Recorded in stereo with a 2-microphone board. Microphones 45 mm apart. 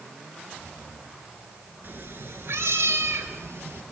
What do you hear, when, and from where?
1.8 s a cat meowing: 45° right (ahead or behind), 2 m; by 3.8 s 75° right (ahead or behind), 3.5 m